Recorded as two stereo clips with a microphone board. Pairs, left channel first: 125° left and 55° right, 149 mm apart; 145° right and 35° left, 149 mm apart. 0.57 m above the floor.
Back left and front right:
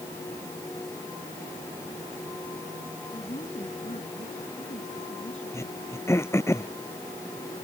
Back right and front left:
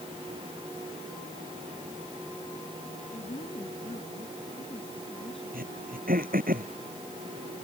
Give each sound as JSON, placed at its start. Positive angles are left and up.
{"t": 3.1, "sound": "a woman speaking", "azimuth_deg": 170}
{"t": 5.5, "sound": "throat clearing", "azimuth_deg": 50}